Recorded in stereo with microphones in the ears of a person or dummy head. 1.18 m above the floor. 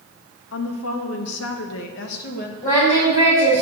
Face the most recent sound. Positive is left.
turn(degrees=40)  # may be behind; listen again after turning